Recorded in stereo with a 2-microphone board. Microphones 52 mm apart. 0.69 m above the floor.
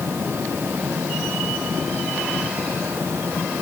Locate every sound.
Only background noise.